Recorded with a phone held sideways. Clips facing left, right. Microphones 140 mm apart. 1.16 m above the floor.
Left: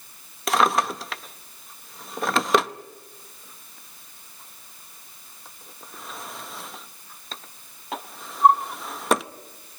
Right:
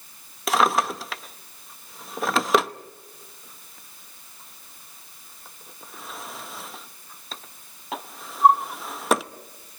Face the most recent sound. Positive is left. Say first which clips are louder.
# even
turn(degrees=0)  # may be behind; listen again after turning